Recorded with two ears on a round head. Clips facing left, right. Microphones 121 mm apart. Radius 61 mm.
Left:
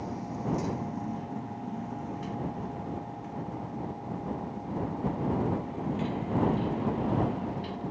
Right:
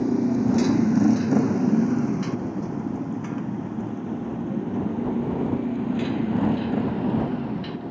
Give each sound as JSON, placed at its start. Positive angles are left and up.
{"t": 0.0, "sound": "a motorcycle", "side_deg": -65}